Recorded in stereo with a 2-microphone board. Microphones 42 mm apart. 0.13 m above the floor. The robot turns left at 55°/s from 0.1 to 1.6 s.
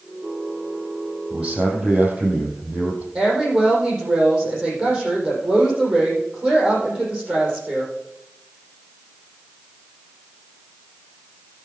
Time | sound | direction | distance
1.3 | a man speaking | 15° right (ahead or behind) | 4.5 m
3.1 | a woman speaking | 15° right (ahead or behind) | 5.5 m